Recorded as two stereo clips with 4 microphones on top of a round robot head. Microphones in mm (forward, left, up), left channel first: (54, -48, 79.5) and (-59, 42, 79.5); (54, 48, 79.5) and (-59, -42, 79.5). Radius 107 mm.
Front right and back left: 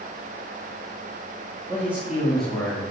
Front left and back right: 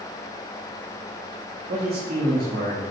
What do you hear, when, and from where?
1.7 s a man speaking: 145° right, 2.5 m; by 2.8 s 115° right, 3.5 m